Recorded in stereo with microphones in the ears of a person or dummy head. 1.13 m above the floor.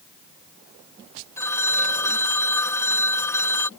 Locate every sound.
1.4 s a phone ringing: 15° left (ahead or behind)